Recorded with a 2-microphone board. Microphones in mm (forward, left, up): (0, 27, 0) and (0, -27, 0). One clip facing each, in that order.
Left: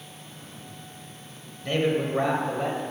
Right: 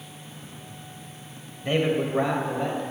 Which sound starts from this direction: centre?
A man speaking, at 1.6 s.